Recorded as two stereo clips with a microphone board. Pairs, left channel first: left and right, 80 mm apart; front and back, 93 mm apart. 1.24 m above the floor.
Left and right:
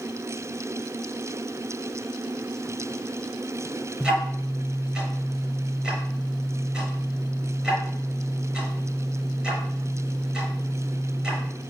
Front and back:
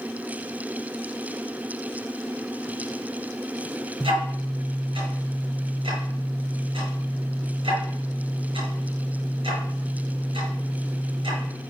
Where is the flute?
No flute in this recording.